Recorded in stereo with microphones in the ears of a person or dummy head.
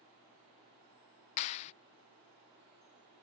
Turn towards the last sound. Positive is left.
turn(degrees=25)  # may be behind; listen again after turning